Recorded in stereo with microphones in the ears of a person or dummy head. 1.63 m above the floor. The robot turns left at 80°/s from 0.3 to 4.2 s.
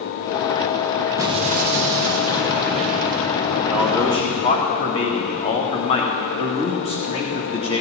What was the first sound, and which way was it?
An explosion, 15° right.